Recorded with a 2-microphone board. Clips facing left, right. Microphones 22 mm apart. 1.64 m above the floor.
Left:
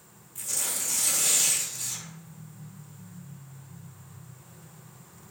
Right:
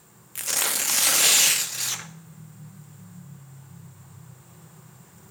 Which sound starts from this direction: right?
Tearing paper, at 0.3 s.